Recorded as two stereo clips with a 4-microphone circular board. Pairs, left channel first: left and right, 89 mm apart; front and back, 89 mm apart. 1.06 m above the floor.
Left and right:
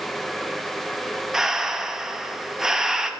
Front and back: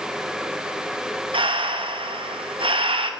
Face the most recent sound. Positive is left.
turn(degrees=-175)